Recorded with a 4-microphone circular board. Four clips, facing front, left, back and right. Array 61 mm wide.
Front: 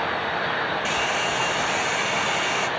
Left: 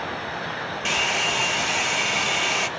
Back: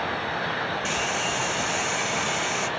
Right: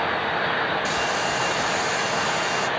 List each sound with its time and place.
0.8 s a hair dryer: 75° left, 1.2 m